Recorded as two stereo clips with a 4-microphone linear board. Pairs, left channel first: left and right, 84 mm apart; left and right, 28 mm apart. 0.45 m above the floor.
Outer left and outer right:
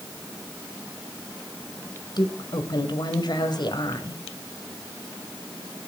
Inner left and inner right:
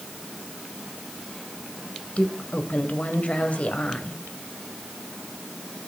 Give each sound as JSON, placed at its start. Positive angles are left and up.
{"t": 2.2, "sound": "a woman speaking", "side_deg": 55, "distance_m": 2.0}